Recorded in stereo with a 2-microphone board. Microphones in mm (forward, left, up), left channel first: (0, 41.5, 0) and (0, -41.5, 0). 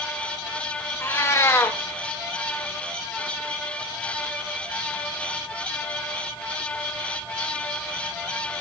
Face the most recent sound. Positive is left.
turn(degrees=30)  # may be behind; listen again after turning